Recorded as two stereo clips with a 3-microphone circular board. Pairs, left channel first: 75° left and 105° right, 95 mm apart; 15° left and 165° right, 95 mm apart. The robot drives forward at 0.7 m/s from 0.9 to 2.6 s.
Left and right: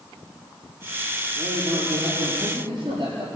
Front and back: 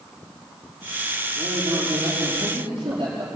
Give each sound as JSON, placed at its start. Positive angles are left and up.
{"t": 1.4, "sound": "a man speaking", "azimuth_deg": -140, "distance_m": 5.0}